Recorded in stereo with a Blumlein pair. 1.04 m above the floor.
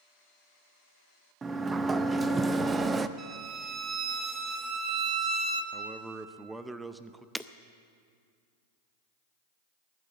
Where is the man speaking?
5° right, 0.7 m.